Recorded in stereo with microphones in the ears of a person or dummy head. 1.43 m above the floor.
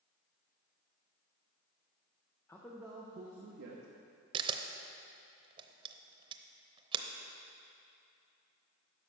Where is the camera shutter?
30° right (ahead or behind), 0.7 m.